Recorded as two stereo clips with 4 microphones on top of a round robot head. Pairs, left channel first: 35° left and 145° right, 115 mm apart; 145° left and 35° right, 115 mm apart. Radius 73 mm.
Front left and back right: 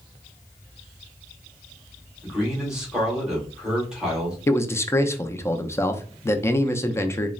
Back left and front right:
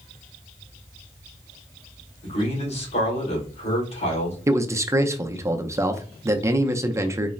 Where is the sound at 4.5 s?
Straight ahead, 0.6 m.